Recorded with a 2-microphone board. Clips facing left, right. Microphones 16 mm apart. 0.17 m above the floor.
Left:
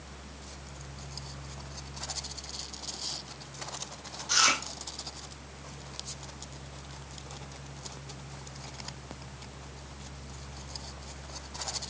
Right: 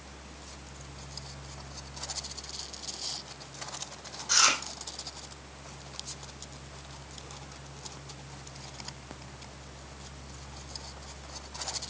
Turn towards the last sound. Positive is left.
turn(degrees=10)  # may be behind; listen again after turning